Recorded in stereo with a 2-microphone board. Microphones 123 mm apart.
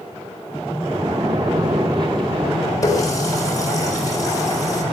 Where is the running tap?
30° left (ahead or behind), 4 m.